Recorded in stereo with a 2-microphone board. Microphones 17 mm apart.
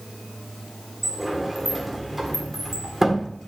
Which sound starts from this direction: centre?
A sliding door, at 1.0 s.